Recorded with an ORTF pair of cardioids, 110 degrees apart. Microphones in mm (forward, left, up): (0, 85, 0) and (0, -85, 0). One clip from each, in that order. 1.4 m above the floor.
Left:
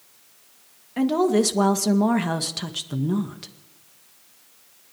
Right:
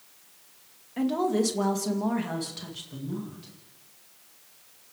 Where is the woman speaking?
30° left, 2 m; by 3.5 s 70° left, 2 m.